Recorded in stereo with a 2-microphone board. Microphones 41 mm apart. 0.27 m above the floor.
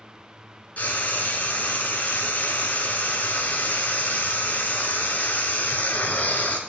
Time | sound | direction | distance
0.8 | frying | 45° left (ahead or behind) | 1.0 m